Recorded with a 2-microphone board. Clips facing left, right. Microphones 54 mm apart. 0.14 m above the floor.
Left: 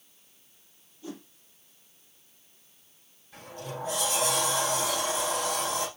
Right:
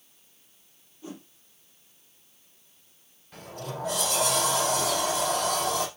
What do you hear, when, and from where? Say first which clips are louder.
1.0 s a whoosh: left 1 dB; 25° right (ahead or behind), 4 m
3.3 s a sliding door: right 2 dB; 60° right (ahead or behind), 5 m